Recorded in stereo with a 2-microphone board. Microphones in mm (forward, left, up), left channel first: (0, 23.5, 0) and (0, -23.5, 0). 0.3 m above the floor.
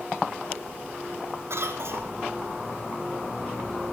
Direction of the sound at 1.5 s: 70° right (ahead or behind).